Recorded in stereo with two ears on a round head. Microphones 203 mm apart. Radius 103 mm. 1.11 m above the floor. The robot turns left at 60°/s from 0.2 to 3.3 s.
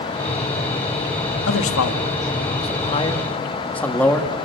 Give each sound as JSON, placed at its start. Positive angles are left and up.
{"t": 1.5, "sound": "a man speaking", "side_deg": 60, "distance_m": 1.7}